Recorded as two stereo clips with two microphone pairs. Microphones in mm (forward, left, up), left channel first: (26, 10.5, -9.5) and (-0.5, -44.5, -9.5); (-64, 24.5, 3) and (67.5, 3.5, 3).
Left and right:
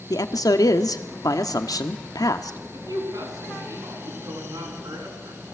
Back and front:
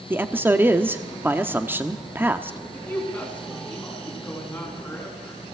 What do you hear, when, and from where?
0.1 s a man speaking: 65° left, 1.2 m
2.7 s a woman speaking: 110° right, 8.5 m